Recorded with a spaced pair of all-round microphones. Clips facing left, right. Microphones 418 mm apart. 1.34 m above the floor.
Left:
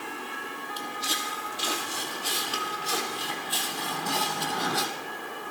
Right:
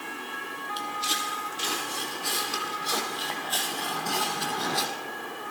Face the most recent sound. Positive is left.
turn(degrees=30)  # may be behind; listen again after turning